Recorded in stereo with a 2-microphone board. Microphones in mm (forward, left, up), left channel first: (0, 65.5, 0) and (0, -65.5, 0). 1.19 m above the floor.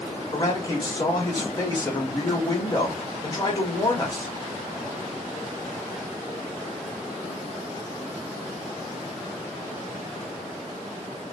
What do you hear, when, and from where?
0.3 s a man speaking: 30° left (ahead or behind), 1.1 m